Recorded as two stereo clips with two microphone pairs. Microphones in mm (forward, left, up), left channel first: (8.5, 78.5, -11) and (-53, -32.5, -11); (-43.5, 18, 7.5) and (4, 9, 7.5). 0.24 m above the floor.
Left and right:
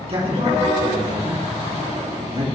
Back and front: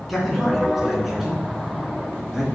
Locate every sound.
0.1 s a man speaking: 100° right, 3 m; by 2.4 s 90° right, 4.5 m